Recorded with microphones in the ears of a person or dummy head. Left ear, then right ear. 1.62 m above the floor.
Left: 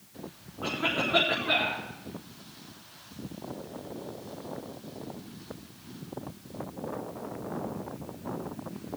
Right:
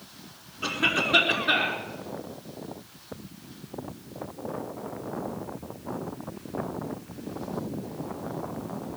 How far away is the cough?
About 6 m.